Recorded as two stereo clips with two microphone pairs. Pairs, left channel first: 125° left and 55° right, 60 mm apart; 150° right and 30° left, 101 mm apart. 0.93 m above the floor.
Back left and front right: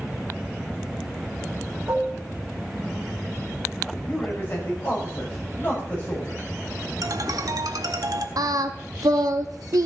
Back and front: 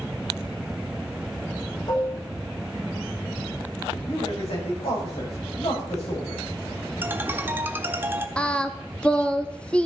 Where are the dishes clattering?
105° right, 1.6 m.